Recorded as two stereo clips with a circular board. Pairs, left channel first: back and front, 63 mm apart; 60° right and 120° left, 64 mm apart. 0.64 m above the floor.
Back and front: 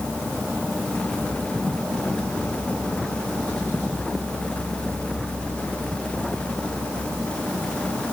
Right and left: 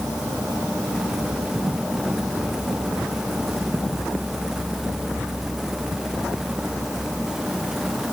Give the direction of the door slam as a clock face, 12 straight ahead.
No door slam in this recording.